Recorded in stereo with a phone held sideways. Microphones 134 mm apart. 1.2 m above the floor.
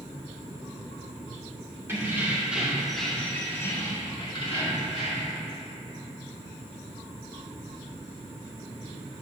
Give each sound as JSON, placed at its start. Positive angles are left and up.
{"t": 1.9, "sound": "keys jangling", "side_deg": -20, "distance_m": 2.5}